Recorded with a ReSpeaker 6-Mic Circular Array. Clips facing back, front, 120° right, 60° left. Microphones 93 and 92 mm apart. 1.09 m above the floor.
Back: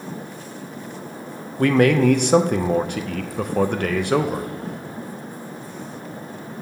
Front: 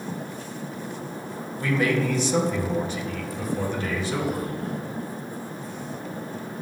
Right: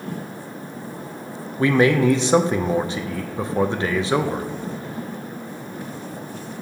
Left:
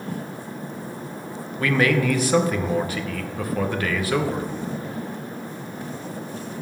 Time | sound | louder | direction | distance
1.6 | a man speaking | back 8 dB, right 4 dB | straight behind | 0.8 m